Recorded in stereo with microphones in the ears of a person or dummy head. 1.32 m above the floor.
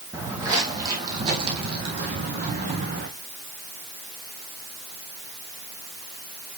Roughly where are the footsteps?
Centre.